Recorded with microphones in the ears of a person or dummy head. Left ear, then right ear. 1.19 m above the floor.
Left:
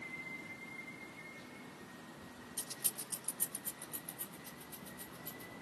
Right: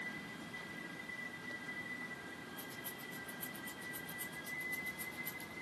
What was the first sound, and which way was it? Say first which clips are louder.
Keys jangling: left 2 dB; 75° left (ahead or behind).